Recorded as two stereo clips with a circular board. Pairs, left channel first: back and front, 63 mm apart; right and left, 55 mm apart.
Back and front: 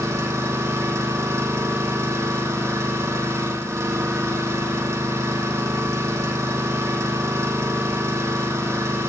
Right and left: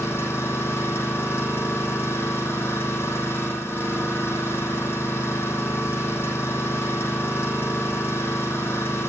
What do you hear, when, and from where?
0.0 s an engine running: 45° right, 6.5 m